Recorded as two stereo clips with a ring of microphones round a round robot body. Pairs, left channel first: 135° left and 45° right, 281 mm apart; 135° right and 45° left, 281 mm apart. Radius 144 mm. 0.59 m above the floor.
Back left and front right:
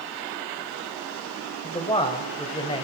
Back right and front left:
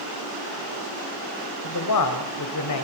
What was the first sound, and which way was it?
A man speaking, 155° right.